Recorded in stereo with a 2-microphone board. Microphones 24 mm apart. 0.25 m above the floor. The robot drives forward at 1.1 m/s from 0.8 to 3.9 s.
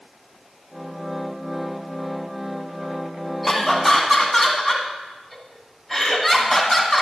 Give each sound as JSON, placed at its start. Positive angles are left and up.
{"t": 3.4, "sound": "laughter", "side_deg": 0, "distance_m": 1.3}